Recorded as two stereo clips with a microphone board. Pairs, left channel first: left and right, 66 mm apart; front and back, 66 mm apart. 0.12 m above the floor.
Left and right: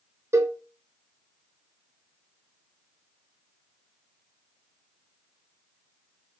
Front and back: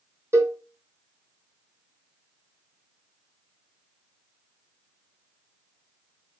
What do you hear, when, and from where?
0.3 s a cowbell: 130° right, 0.7 m